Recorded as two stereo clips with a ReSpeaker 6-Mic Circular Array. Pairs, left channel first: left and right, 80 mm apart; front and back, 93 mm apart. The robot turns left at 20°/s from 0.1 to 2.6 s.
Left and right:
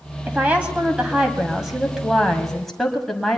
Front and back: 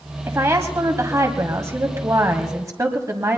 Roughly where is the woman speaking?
Behind right.